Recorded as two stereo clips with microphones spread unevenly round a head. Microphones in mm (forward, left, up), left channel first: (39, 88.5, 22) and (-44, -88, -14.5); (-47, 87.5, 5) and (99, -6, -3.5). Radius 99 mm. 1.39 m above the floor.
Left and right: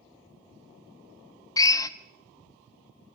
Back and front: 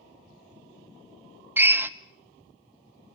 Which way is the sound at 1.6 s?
40° left.